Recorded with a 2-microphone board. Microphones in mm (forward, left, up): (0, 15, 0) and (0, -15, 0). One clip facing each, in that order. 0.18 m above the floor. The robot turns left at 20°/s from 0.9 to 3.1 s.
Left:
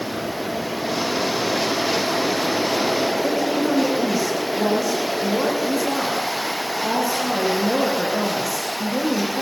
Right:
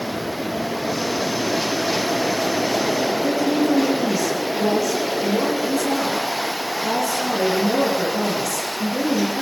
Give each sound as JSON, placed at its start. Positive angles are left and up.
{"t": 3.2, "sound": "a woman speaking", "side_deg": 15, "distance_m": 10.0}